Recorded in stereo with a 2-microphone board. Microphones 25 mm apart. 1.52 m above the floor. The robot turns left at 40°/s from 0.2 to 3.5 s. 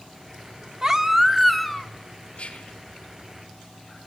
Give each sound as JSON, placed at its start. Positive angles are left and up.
{"t": 0.8, "sound": "a baby crying", "azimuth_deg": -150, "distance_m": 1.4}
{"t": 2.4, "sound": "whispering", "side_deg": 60, "distance_m": 3.5}